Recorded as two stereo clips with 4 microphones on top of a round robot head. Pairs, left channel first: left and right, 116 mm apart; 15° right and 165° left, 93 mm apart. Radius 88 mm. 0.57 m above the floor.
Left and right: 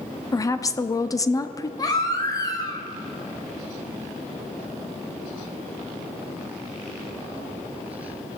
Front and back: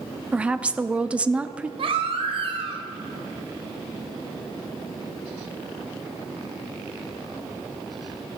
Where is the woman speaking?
100° left, 0.8 m.